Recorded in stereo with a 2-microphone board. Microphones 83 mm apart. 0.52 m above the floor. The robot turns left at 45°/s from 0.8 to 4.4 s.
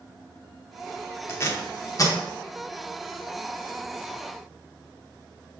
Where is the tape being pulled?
25° left (ahead or behind), 0.6 m; by 2.2 s 45° left (ahead or behind), 0.6 m.